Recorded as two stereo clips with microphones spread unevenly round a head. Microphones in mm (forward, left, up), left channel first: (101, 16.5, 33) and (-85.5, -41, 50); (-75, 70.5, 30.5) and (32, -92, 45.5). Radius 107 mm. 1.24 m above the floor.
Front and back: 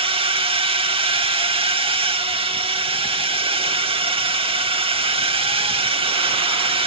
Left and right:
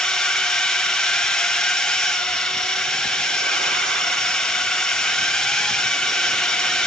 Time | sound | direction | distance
0.0 | a drone | 165° right | ?